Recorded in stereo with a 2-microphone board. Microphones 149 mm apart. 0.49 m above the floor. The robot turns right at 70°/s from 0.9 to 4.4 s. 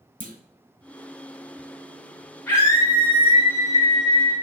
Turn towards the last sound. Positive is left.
turn(degrees=150)